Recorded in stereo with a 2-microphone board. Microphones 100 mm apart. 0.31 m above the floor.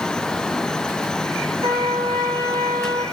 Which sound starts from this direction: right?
A trumpet, at 1.6 s.